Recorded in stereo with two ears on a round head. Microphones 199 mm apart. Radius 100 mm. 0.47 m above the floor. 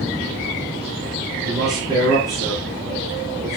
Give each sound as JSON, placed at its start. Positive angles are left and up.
{"t": 1.4, "sound": "a man speaking", "side_deg": -20, "distance_m": 6.5}